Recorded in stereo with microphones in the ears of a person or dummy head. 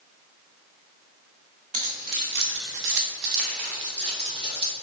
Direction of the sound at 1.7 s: 40° right (ahead or behind).